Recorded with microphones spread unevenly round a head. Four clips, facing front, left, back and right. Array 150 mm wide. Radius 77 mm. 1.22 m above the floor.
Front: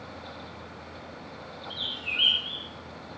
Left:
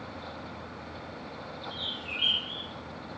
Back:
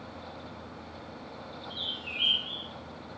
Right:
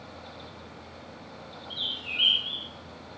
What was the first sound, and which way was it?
A bird, 20° left.